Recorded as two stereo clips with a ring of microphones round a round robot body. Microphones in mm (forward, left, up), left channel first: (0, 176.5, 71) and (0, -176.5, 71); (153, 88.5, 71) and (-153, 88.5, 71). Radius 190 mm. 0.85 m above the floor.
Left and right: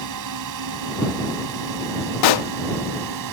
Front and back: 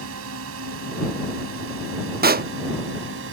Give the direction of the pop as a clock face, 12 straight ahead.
8 o'clock.